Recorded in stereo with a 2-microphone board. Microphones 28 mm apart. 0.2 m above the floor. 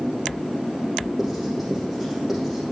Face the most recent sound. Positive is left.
turn(degrees=-5)  # may be behind; listen again after turning